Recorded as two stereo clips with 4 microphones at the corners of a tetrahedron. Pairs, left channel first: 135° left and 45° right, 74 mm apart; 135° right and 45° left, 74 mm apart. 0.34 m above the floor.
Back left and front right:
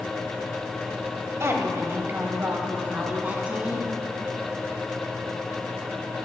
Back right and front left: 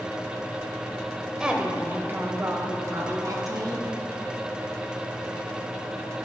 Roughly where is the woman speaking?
Ahead right.